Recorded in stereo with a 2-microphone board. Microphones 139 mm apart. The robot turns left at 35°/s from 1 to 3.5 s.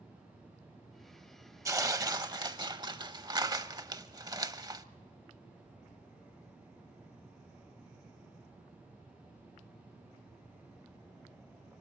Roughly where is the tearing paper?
Ahead right.